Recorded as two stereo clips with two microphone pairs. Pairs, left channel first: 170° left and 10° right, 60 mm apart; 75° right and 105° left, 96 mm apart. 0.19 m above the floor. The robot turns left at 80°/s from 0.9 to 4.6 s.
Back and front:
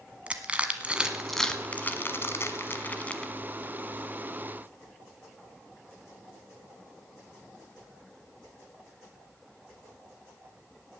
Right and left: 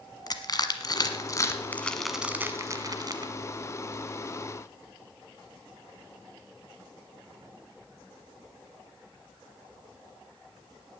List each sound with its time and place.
0.3 s crushing: 70° right, 1.2 m; by 3.3 s 95° left, 1.2 m